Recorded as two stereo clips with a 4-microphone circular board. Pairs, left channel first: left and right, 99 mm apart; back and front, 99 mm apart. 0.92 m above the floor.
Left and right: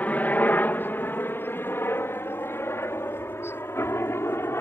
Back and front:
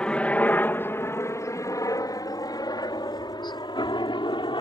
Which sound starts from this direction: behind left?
A helicopter, at 0.0 s.